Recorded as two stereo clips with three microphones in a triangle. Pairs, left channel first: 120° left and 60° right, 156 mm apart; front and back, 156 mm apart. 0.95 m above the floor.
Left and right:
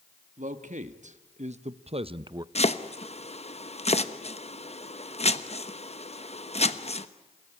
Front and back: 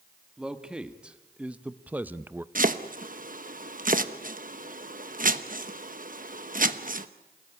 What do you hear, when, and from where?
0.4 s a man speaking: 95° right, 1.6 m; by 2.5 s 110° right, 0.6 m
2.5 s chopping: 165° left, 1.0 m